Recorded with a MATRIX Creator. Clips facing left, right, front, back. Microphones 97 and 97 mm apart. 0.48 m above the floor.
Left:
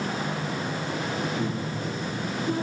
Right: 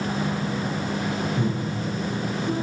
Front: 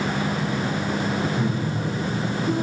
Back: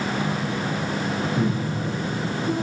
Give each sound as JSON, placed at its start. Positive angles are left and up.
{"t": 1.4, "sound": "breathing", "azimuth_deg": -145, "distance_m": 4.5}